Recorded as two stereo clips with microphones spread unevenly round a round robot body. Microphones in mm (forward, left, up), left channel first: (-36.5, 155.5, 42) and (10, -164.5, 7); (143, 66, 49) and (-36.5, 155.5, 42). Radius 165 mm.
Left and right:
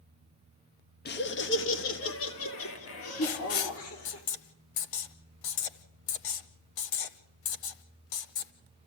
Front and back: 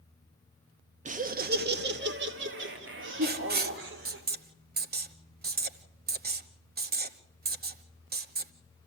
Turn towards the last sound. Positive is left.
turn(degrees=110)